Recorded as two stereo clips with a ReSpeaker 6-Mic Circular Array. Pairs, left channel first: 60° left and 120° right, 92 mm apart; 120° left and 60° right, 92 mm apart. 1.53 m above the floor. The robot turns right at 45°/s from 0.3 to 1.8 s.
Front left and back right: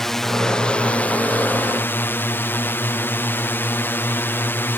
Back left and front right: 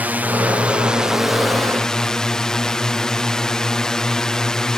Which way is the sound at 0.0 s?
20° right.